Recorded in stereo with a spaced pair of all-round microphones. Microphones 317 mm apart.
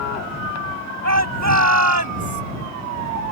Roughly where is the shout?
Right.